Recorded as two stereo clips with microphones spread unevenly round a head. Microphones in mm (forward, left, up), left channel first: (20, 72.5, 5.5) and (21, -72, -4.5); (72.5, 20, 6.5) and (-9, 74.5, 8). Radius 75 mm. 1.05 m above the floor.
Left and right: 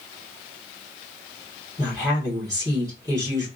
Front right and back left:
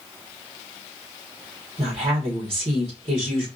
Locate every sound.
1.8 s a woman speaking: 160° right, 1.6 m